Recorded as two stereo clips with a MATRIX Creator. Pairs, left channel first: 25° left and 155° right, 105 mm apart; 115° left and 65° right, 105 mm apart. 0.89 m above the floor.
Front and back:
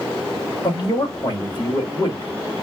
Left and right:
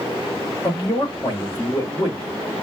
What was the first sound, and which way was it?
A man speaking, 60° left.